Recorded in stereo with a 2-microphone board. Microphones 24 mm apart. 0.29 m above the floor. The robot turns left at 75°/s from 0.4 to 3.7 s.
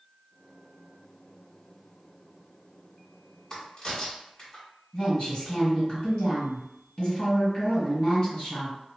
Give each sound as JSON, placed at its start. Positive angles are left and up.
{"t": 3.5, "sound": "a crack", "side_deg": 35, "distance_m": 1.4}
{"t": 4.9, "sound": "a woman speaking", "side_deg": 40, "distance_m": 1.8}